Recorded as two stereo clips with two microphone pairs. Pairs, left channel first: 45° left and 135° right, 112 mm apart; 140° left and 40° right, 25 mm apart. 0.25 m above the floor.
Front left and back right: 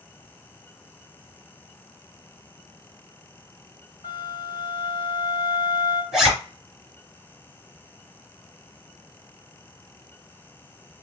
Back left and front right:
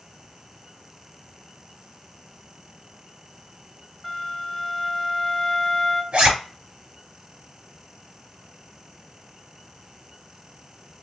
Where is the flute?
60° left, 2 m.